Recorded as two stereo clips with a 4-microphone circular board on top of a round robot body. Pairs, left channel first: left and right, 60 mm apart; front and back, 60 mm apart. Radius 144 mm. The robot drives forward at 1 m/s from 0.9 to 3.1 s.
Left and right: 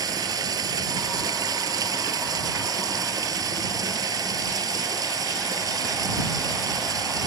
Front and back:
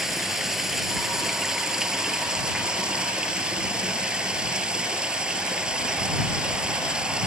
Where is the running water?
95° right; by 7.3 s 105° right.